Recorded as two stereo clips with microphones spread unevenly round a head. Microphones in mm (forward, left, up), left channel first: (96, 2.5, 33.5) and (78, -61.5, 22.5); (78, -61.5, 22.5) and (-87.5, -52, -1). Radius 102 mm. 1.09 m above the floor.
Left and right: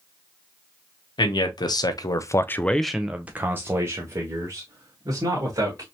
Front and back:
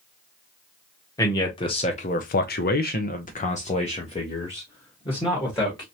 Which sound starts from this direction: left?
A man speaking, at 1.2 s.